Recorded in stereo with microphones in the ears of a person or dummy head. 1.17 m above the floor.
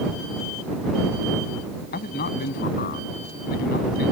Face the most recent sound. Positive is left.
turn(degrees=50)  # may be behind; listen again after turning